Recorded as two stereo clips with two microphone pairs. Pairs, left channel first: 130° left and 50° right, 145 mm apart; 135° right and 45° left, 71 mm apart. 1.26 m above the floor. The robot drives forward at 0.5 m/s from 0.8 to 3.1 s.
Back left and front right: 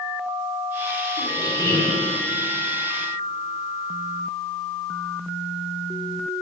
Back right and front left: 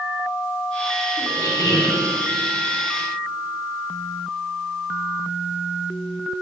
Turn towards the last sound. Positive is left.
turn(degrees=-170)